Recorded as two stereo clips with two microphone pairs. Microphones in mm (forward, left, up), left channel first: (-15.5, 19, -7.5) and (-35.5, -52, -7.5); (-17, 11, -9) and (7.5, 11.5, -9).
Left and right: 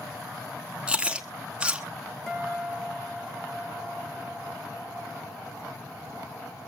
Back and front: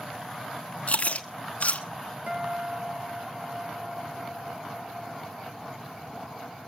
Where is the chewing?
Straight behind, 1.1 m.